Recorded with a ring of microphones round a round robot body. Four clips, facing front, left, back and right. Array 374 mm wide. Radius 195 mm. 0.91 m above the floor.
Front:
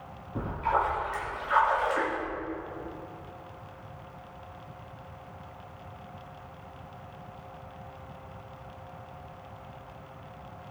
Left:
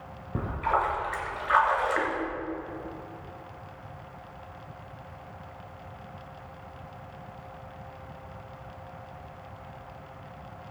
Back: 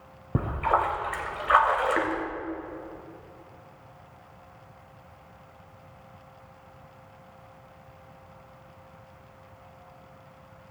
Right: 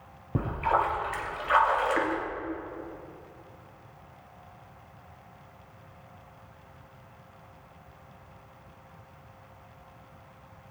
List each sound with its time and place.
0.3 s a splash: 170° right, 1.9 m